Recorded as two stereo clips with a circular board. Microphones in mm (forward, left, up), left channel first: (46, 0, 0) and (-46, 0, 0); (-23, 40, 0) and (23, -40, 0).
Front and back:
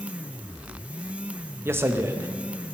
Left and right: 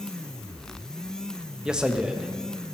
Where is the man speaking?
135° right, 0.6 m.